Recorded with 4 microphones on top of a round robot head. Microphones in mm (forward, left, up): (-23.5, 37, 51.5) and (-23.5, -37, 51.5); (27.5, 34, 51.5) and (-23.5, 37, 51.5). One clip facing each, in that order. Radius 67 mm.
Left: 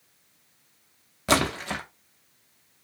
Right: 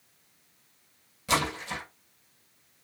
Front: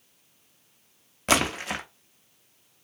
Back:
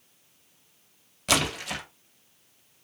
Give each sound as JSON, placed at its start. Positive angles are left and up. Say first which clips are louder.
{"t": 1.3, "sound": "a splash", "louder": "left 4 dB, front 2 dB", "azimuth_deg": 50, "distance_m": 0.6}